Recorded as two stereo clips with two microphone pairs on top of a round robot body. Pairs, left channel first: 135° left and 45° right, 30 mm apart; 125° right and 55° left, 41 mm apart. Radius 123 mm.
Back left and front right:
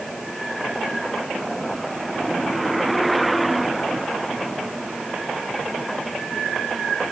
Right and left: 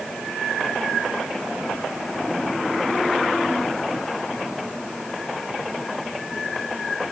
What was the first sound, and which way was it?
Only background noise.